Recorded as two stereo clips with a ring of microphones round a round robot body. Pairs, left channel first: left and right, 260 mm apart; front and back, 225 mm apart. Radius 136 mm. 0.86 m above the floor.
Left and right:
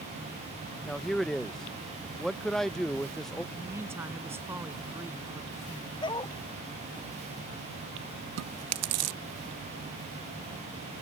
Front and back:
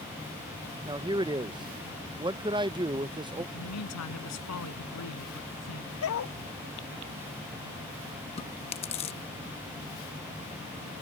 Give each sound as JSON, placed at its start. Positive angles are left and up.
{"t": 0.8, "sound": "a man speaking", "azimuth_deg": 175}
{"t": 3.5, "sound": "a man speaking", "azimuth_deg": -10}
{"t": 6.0, "sound": "a dog barking", "azimuth_deg": 15}
{"t": 8.4, "sound": "chewing", "azimuth_deg": -65}